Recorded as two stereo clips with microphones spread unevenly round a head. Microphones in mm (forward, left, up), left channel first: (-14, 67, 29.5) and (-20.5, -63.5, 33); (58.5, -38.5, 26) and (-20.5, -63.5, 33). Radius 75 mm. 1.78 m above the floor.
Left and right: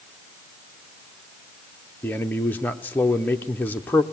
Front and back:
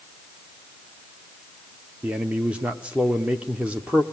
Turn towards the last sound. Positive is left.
turn(degrees=155)